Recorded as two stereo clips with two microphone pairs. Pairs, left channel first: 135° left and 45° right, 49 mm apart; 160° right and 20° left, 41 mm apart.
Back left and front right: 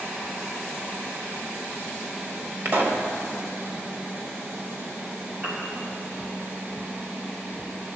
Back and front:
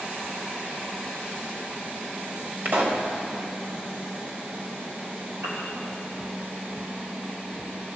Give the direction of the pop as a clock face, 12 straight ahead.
12 o'clock.